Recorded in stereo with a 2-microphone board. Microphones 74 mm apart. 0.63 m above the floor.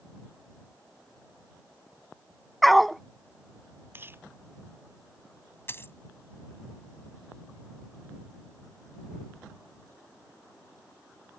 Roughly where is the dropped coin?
Left.